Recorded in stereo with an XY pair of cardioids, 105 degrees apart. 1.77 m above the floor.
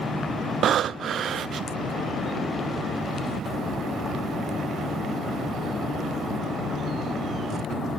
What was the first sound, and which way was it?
Breathing, 60° right.